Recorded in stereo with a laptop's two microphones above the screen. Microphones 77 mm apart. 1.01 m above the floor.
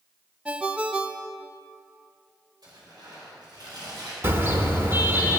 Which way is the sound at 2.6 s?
60° right (ahead or behind).